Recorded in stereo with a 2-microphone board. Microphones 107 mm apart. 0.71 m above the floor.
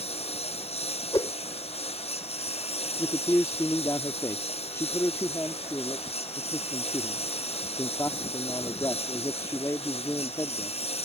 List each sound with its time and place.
0.0 s a lawn mower: 70° left (ahead or behind)
1.1 s a whoosh: 40° left (ahead or behind)
3.0 s a man speaking: 30° left (ahead or behind)